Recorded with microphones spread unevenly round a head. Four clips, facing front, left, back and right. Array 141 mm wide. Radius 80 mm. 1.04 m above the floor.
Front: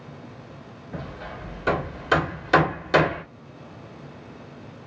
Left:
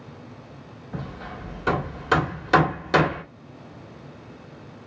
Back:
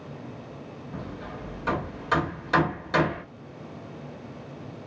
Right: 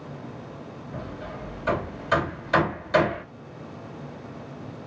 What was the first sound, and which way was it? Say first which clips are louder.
Hammering: left 1 dB, front 2 dB; 60° left.